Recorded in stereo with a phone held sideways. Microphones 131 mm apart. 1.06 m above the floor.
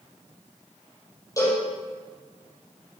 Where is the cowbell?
25° left (ahead or behind), 6.5 m.